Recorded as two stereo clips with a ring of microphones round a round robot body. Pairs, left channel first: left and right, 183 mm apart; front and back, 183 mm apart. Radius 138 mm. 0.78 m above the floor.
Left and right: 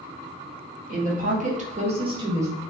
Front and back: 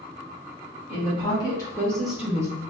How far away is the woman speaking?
About 1.2 m.